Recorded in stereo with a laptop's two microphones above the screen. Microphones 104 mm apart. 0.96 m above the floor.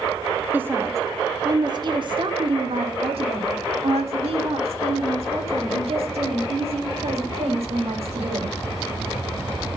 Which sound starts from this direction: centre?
A woman speaking, at 0.5 s.